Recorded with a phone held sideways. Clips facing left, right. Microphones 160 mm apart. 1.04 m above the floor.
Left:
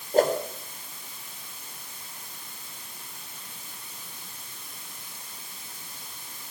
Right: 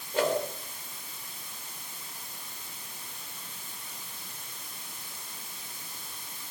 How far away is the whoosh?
About 3 m.